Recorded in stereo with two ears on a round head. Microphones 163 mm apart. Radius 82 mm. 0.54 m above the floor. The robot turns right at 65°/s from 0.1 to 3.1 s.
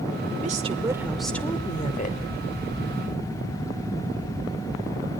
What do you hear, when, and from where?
0.4 s a woman speaking: 50° right, 1.7 m; by 2.2 s 65° left, 1.7 m